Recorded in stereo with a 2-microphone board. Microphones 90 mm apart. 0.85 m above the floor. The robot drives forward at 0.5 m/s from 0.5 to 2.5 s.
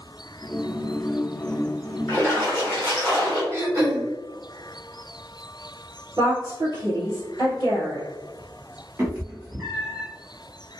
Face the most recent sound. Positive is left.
turn(degrees=-25)  # may be behind; listen again after turning